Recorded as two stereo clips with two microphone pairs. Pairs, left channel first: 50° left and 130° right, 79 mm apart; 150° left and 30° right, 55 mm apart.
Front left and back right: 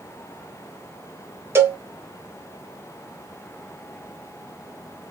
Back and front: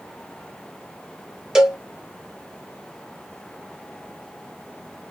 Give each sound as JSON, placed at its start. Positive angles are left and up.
{"t": 1.6, "sound": "a cowbell", "azimuth_deg": -105, "distance_m": 0.9}